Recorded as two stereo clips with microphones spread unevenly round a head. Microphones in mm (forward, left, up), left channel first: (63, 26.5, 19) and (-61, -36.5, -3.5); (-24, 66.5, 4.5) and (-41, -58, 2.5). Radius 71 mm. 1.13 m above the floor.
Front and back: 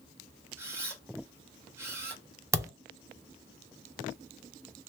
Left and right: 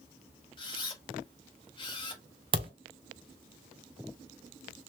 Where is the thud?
80° right, 0.6 m.